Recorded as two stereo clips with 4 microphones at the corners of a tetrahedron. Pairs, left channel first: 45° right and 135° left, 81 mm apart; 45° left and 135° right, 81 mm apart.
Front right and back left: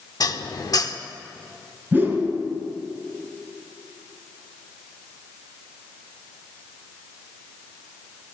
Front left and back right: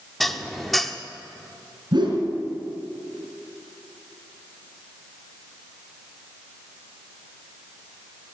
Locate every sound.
0.2 s dishes clattering: 45° right, 0.8 m
1.9 s a whoosh: 160° right, 4 m